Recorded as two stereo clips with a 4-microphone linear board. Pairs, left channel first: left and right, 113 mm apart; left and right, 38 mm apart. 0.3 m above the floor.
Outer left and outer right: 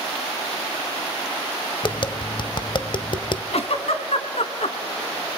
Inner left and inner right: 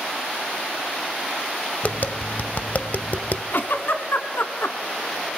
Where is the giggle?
65° left (ahead or behind), 1.3 m.